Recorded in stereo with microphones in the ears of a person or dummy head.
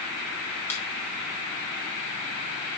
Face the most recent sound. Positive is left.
turn(degrees=10)  # may be behind; listen again after turning